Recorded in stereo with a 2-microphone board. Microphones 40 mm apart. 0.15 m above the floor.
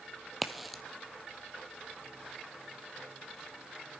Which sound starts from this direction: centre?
A crack, at 0.4 s.